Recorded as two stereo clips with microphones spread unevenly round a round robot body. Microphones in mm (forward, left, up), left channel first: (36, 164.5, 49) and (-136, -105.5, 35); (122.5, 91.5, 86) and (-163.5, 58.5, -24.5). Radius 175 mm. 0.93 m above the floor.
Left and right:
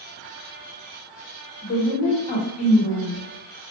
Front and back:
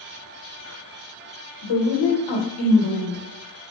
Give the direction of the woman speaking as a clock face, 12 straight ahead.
12 o'clock.